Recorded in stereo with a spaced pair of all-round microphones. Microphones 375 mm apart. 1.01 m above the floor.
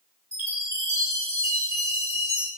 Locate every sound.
0.3 s a chime: 10° right (ahead or behind), 3.5 m